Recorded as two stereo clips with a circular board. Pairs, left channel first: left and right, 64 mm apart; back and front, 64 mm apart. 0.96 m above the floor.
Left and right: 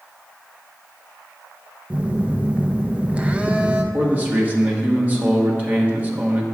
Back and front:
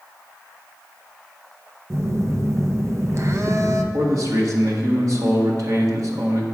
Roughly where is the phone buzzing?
Ahead right.